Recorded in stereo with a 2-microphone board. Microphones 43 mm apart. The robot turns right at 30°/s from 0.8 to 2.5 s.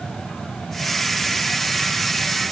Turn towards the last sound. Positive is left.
No sound to turn to.